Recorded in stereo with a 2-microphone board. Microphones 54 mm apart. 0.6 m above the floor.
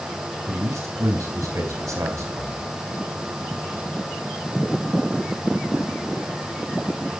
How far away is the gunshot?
No gunshot in this recording.